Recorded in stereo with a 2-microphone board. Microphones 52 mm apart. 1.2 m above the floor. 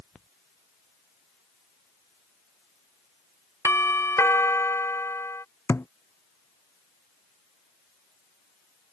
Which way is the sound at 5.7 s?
55° left (ahead or behind).